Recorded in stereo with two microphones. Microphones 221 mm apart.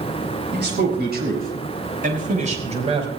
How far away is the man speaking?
About 6 m.